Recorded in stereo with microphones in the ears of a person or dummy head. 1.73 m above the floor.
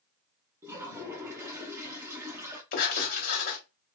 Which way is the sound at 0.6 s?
15° right (ahead or behind).